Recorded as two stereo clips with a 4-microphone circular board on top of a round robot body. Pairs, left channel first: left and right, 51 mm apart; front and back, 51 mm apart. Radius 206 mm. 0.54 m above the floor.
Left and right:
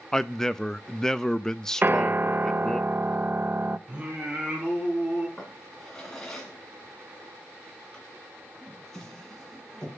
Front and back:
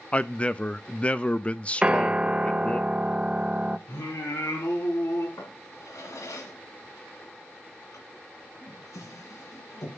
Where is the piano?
115° right, 0.7 m.